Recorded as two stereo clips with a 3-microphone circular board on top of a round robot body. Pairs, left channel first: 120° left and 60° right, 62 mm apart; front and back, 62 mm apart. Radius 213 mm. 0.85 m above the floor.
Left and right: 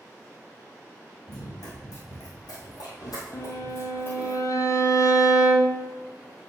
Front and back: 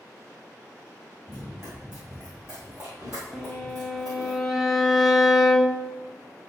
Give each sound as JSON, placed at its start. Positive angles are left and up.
{"t": 1.3, "sound": "running footsteps", "azimuth_deg": 100, "distance_m": 3.0}
{"t": 3.3, "sound": "a violin", "azimuth_deg": 90, "distance_m": 1.0}